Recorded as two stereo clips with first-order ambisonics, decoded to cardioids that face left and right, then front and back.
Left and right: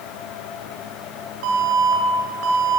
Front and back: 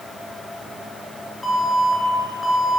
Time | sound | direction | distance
1.4 | an alarm | 80° right | 5 m